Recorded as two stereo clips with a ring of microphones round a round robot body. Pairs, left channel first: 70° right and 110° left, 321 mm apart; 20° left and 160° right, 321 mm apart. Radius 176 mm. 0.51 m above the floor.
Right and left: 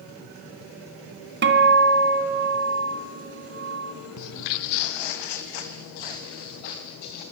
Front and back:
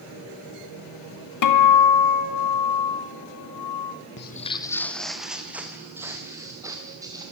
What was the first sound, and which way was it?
A guitar, 55° left.